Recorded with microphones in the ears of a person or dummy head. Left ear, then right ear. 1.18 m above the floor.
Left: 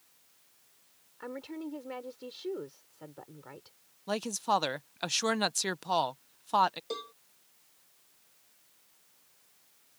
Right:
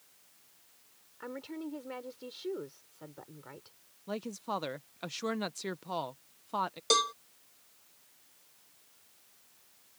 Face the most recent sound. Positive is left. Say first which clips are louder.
# right 12 dB
turn(degrees=-45)  # may be behind; listen again after turning